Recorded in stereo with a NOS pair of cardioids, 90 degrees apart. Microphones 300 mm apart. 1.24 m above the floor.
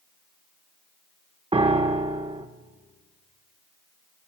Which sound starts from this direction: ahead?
A piano, at 1.5 s.